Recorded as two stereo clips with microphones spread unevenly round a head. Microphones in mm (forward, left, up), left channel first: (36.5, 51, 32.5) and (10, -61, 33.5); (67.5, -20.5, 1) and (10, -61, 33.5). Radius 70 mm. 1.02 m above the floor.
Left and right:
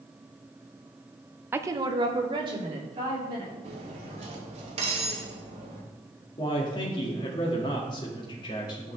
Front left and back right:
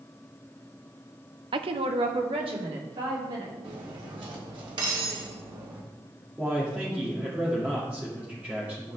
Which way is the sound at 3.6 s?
150° right.